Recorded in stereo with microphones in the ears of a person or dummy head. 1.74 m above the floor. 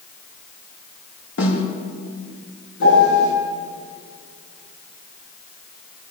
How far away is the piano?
About 9 m.